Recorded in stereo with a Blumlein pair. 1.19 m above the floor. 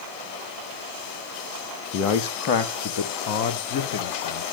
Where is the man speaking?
35° left, 1.3 m; by 4.4 s 55° left, 2.5 m.